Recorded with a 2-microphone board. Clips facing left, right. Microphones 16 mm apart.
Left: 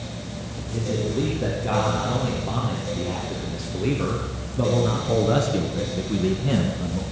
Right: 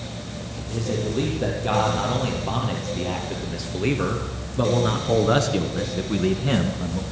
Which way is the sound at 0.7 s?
30° right (ahead or behind).